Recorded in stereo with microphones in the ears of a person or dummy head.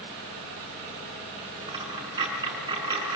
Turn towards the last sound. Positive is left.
turn(degrees=-25)  # may be behind; listen again after turning